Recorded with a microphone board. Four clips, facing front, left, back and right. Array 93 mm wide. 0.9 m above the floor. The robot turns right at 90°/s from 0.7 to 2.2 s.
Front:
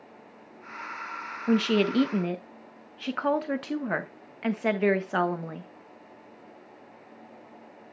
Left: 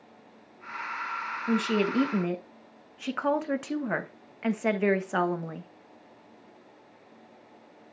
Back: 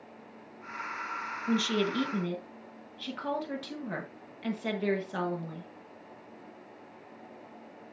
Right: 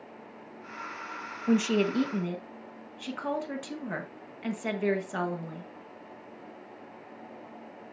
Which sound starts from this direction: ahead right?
A woman speaking, at 1.5 s.